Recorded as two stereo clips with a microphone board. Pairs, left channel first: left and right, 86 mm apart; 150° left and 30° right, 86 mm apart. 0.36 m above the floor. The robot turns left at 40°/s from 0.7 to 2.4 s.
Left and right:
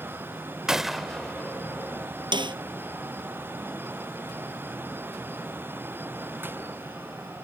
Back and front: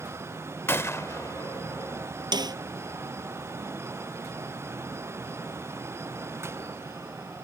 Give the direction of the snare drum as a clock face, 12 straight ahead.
2 o'clock.